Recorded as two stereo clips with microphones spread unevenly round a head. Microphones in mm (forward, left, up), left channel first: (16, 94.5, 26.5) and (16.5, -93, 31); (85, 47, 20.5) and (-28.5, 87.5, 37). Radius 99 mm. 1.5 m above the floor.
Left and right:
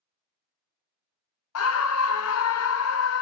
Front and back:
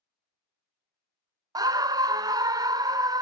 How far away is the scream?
About 0.6 m.